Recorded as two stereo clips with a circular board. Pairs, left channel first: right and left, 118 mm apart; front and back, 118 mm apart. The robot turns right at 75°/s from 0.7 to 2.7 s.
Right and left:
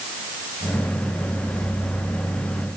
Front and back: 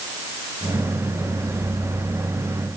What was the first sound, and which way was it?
Only background noise.